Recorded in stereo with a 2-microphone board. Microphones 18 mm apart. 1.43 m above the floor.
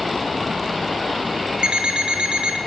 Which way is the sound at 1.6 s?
60° right (ahead or behind).